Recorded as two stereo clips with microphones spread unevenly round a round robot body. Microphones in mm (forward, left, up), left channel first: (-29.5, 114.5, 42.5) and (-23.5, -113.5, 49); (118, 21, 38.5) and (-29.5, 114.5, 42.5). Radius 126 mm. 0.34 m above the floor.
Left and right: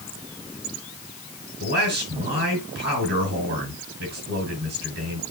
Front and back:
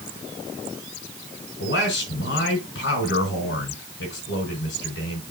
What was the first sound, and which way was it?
A man speaking, 40° right.